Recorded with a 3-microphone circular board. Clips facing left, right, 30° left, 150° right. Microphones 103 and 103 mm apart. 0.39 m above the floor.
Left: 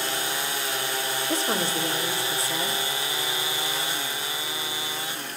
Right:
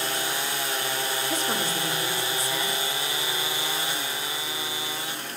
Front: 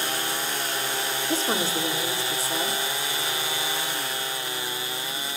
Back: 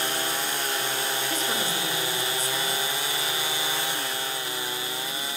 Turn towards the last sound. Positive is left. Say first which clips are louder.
# left 4 dB, front 3 dB
turn(degrees=55)